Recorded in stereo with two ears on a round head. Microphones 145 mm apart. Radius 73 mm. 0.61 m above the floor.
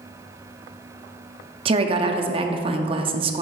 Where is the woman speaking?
35° right (ahead or behind), 0.7 m.